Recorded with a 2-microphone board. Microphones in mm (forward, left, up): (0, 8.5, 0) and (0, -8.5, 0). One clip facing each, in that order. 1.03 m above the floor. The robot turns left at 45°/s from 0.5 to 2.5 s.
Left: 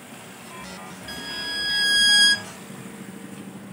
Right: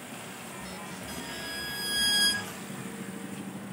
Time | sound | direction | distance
1.1 | a violin | 135° left | 0.7 m